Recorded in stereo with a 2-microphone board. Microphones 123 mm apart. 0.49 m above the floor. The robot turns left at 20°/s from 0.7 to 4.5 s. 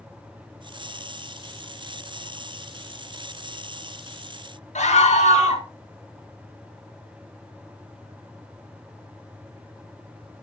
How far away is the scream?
About 4 m.